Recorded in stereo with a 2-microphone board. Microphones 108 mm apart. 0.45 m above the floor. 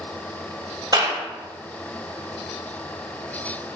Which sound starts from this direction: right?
A clap, at 0.9 s.